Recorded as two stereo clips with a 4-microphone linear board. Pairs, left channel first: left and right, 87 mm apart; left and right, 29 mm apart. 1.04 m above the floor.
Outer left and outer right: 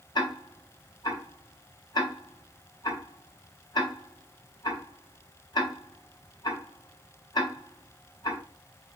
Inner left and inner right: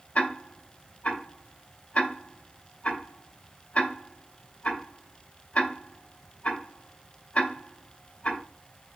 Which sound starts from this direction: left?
Ticking, at 0.1 s.